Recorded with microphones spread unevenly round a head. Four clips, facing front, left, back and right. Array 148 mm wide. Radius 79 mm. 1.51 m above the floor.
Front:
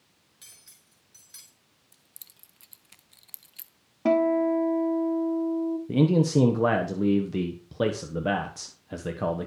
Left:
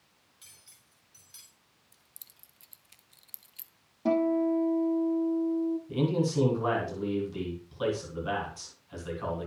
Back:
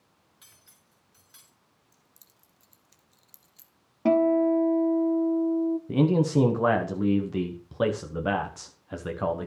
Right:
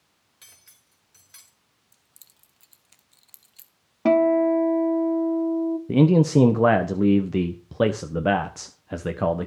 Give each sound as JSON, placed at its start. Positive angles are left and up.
{"t": 0.4, "sound": "cutlery clinking", "azimuth_deg": -70, "distance_m": 4.0}
{"t": 1.9, "sound": "keys jangling", "azimuth_deg": -15, "distance_m": 0.9}
{"t": 4.0, "sound": "a guitar", "azimuth_deg": -105, "distance_m": 1.3}
{"t": 5.9, "sound": "a man speaking", "azimuth_deg": -70, "distance_m": 1.3}